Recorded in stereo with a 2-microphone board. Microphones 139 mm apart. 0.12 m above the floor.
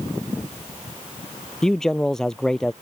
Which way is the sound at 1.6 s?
Centre (ahead or behind).